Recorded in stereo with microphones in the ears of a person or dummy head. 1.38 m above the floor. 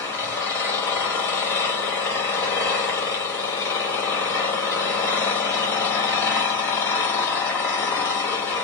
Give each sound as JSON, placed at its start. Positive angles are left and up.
{"t": 0.0, "sound": "an engine running", "side_deg": 15, "distance_m": 1.4}